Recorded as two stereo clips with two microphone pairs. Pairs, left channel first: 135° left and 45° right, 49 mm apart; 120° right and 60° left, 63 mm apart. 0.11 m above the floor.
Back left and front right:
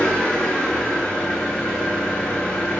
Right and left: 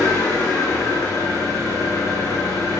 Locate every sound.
0.0 s an engine running: 160° right, 3 m